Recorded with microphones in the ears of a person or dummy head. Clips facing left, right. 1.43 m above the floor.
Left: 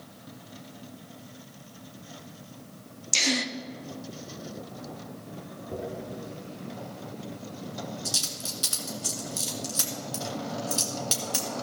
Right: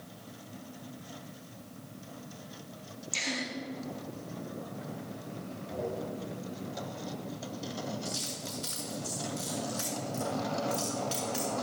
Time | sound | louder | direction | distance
3.1 | a gasp | left 8 dB | 50° left (ahead or behind) | 0.6 m
5.7 | a dropped coin | even | 65° left (ahead or behind) | 3 m